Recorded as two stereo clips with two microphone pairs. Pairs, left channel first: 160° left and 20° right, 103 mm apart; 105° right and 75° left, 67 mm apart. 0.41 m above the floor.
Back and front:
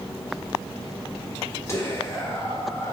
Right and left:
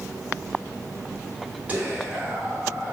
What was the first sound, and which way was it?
Whispering, 120° left.